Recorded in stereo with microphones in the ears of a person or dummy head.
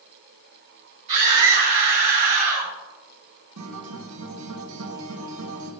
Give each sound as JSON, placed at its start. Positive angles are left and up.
{"t": 1.1, "sound": "a scream", "side_deg": -35, "distance_m": 3.0}
{"t": 3.6, "sound": "a guitar", "side_deg": -85, "distance_m": 1.7}